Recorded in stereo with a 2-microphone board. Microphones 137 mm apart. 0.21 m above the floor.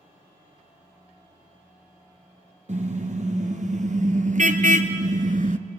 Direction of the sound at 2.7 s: 60° right (ahead or behind).